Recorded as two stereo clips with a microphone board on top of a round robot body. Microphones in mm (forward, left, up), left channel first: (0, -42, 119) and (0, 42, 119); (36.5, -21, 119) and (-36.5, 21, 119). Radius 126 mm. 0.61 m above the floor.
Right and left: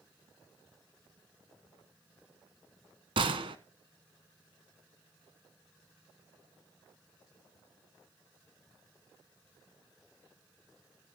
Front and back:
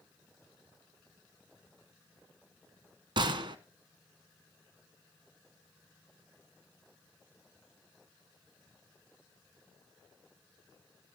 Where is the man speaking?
No man speaking in this recording.